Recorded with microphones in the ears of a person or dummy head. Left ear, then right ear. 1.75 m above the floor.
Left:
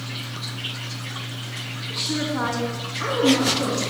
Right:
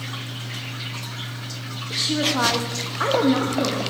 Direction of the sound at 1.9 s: 10° right (ahead or behind).